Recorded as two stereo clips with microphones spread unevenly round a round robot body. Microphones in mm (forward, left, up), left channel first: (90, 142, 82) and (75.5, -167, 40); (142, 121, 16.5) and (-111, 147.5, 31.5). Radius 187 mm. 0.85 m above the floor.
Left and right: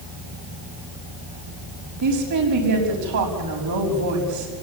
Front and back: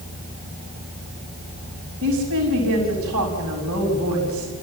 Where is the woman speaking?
130° right, 6 m.